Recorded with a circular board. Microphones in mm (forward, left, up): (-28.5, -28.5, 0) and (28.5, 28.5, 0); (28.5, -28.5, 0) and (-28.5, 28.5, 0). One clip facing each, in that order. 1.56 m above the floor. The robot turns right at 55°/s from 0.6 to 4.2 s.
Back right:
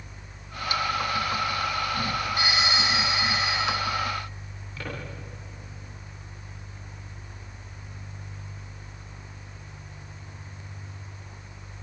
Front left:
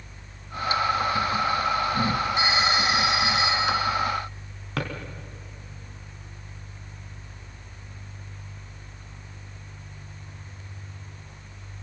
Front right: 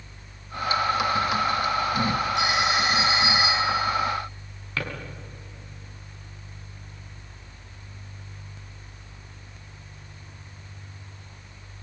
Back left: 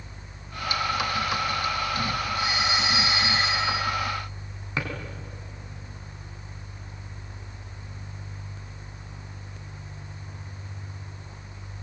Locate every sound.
2.4 s a phone ringing: 25° right, 6.5 m; by 3.9 s 60° left, 6.5 m
4.8 s a drawer: 60° left, 4 m